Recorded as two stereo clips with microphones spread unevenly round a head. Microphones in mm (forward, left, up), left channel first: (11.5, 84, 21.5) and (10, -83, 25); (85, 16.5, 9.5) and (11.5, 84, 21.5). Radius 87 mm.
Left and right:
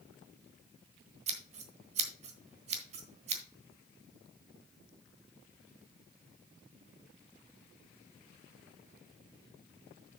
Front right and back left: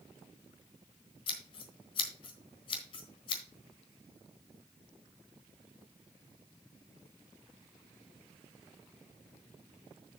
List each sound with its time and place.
1.3 s scissors: 65° right, 1.2 m